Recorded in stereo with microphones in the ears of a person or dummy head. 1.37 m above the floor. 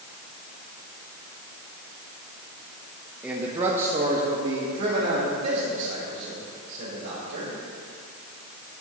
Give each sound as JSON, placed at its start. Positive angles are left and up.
{"t": 3.2, "sound": "a man speaking", "side_deg": -5, "distance_m": 1.1}